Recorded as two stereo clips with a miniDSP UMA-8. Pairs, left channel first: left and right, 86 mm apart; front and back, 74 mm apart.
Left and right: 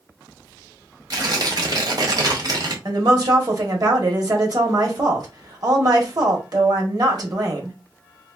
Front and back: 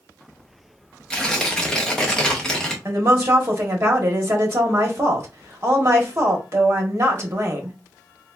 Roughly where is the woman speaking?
Behind right.